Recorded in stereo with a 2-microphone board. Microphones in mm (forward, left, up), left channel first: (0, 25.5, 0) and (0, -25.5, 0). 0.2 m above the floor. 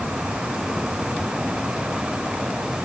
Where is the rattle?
I don't hear a rattle.